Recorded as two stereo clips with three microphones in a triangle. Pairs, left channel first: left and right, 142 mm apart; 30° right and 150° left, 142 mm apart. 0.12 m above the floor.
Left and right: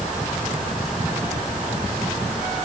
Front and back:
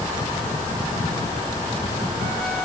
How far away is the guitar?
No guitar in this recording.